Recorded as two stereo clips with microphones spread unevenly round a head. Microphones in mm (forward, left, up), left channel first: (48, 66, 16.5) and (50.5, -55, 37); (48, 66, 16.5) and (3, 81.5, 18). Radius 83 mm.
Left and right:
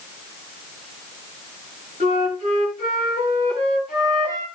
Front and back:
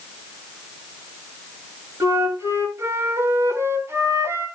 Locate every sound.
2.0 s a flute: 140° left, 8 m